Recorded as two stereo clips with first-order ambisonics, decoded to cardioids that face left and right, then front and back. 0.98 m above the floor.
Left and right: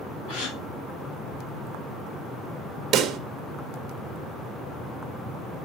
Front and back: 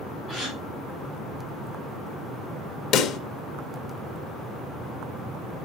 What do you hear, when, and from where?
0.3 s a gasp: 90° left, 3.5 m
2.9 s a pop: 40° right, 0.8 m